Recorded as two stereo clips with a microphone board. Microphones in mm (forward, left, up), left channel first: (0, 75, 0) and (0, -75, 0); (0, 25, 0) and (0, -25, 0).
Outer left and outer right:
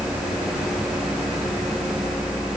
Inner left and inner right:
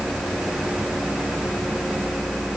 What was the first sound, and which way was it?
Only background noise.